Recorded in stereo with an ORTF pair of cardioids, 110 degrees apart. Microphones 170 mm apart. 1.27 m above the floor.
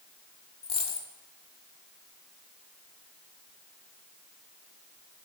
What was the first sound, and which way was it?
A dropped coin, 35° left.